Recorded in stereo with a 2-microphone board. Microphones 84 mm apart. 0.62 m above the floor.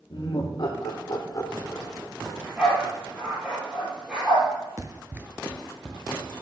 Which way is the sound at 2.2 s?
15° right (ahead or behind).